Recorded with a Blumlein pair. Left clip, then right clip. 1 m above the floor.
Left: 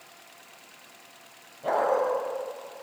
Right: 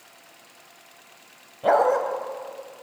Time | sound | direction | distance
1.6 | a dog barking | 65° right | 2 m